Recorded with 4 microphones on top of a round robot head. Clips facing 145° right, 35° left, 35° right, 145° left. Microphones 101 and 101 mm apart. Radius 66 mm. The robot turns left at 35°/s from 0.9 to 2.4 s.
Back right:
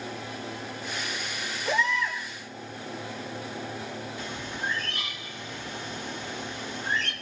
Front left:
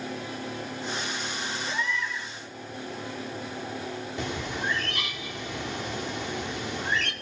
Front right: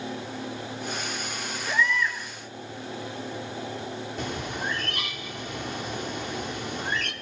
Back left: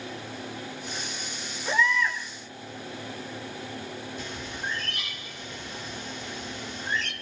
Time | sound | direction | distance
1.6 | a baby crying | 155° right | 8.5 m
4.2 | a bird | 5° left | 2 m